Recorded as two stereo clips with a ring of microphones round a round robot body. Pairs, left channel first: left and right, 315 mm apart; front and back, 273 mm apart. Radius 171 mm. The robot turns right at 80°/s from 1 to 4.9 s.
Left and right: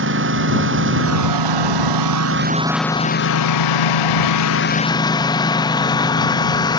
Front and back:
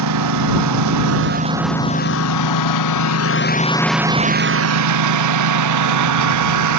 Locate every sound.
0.0 s a lawn mower: 145° right; by 6.8 s 170° left